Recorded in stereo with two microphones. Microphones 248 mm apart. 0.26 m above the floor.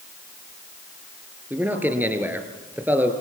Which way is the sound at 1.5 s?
5° right (ahead or behind).